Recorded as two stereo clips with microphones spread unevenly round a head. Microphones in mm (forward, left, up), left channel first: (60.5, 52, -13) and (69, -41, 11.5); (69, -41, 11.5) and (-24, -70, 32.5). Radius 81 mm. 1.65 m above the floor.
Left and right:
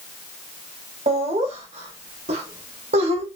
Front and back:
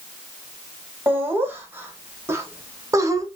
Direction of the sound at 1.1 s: 95° right.